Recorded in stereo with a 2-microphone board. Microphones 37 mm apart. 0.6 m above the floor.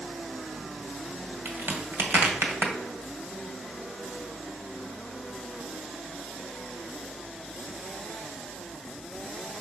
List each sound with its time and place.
1.4 s a crack: 55° right (ahead or behind), 1.9 m